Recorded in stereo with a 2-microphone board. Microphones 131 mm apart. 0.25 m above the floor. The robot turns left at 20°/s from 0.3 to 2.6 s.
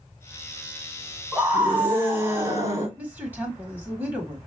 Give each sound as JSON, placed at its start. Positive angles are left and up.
{"t": 1.3, "sound": "a scream", "side_deg": -5, "distance_m": 1.5}
{"t": 3.0, "sound": "a woman speaking", "side_deg": -15, "distance_m": 1.2}